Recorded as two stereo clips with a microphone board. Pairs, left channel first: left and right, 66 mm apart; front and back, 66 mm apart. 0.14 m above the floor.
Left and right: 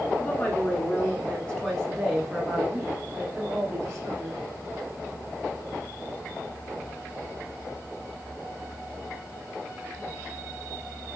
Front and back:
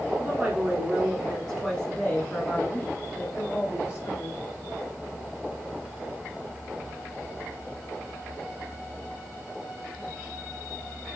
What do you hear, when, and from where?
0.2 s a woman speaking: 120° left, 1.6 m; by 4.4 s 35° right, 2 m